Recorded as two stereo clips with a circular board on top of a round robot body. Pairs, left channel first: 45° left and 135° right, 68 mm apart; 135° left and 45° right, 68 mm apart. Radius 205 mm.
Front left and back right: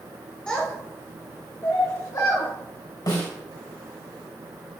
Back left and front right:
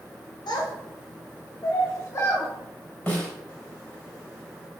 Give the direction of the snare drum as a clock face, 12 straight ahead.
10 o'clock.